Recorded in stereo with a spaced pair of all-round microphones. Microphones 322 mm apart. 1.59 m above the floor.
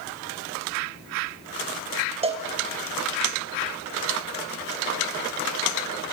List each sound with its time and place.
2.2 s a cowbell: 20° right (ahead or behind), 1.0 m